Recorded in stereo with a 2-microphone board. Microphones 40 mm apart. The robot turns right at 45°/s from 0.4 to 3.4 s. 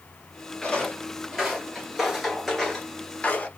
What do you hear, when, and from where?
0.6 s footsteps: 25° left (ahead or behind), 2.0 m; by 3.5 s 30° left (ahead or behind), 1.5 m